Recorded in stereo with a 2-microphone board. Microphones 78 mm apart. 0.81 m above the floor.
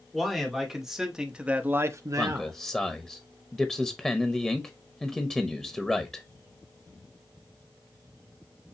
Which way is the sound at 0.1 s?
5° left (ahead or behind).